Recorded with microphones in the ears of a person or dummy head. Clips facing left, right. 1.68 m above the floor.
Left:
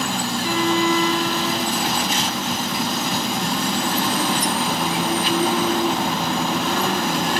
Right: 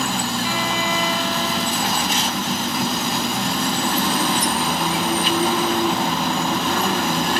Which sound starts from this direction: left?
A violin, at 0.4 s.